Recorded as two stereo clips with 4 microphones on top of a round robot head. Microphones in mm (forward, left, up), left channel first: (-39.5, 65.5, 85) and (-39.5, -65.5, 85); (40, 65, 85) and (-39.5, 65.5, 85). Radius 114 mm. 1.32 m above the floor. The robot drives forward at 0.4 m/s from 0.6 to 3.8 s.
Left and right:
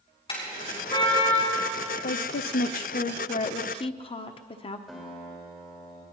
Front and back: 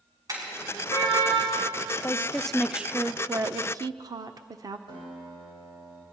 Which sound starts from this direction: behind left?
A car horn, at 0.3 s.